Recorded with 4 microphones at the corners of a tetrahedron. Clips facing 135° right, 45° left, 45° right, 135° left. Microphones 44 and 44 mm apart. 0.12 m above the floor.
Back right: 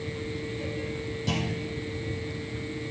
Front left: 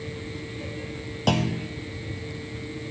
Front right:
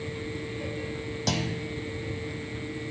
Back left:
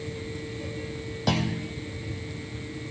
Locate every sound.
1.3 s a clunk: 60° left, 0.8 m